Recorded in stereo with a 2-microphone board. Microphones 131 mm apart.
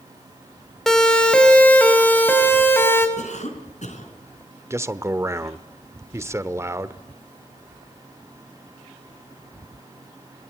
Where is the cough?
65° left (ahead or behind), 4.5 m.